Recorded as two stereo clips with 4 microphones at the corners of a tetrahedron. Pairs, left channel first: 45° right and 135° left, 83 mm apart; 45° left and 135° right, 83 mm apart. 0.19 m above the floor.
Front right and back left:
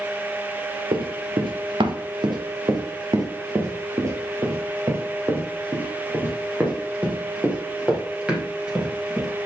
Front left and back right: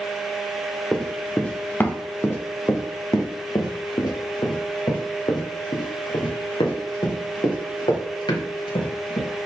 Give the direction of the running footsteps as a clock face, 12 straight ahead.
8 o'clock.